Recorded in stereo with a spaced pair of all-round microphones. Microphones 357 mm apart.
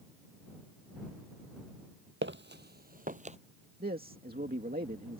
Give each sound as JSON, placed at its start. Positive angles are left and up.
{"t": 2.2, "sound": "footsteps", "side_deg": -35}
{"t": 3.8, "sound": "a man speaking", "side_deg": -25}